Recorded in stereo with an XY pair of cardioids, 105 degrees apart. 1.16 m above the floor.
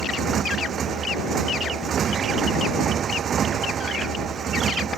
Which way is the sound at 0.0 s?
55° right.